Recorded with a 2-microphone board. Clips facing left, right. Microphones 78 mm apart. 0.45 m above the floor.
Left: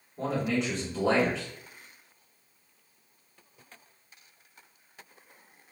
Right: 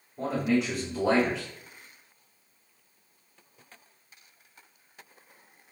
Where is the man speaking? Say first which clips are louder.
Right 3 dB; centre (ahead or behind), 1.6 m.